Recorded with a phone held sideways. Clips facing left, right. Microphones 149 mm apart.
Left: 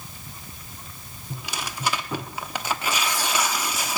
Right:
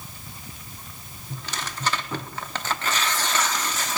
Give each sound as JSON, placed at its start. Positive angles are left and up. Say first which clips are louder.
{"t": 1.3, "sound": "tearing paper", "louder": "left 1 dB", "side_deg": 10, "distance_m": 0.8}